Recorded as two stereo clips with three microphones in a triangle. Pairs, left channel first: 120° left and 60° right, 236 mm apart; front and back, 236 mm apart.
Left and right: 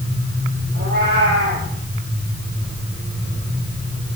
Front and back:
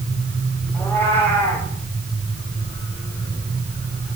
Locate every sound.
0.7 s a cat meowing: 80° right, 7.5 m